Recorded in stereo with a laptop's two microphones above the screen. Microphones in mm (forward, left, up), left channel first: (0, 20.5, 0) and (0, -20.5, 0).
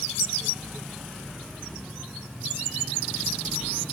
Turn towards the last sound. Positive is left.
No sound to turn to.